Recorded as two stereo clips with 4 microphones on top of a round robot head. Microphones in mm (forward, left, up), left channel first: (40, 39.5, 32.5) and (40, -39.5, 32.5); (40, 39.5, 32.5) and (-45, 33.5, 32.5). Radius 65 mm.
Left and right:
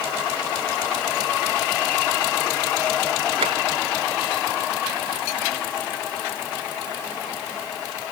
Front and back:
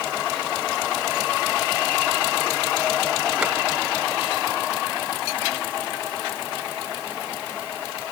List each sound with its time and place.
3.4 s tapping: 95° right